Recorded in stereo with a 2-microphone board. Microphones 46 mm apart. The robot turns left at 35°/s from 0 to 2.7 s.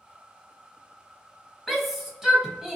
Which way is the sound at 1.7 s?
Centre (ahead or behind).